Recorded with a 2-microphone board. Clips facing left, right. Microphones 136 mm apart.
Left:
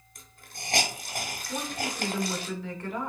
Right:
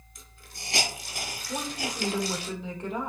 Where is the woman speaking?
20° right (ahead or behind), 0.8 m.